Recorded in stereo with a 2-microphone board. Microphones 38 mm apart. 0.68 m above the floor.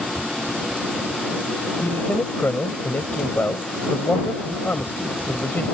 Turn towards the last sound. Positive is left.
turn(degrees=65)  # may be behind; listen again after turning